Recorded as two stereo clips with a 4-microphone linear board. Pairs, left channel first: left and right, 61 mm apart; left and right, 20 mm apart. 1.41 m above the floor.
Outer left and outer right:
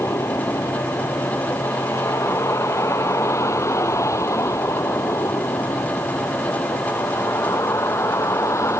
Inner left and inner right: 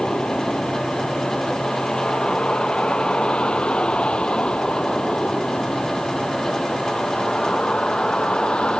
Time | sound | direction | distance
0.0 | a vehicle | 55° left (ahead or behind) | ?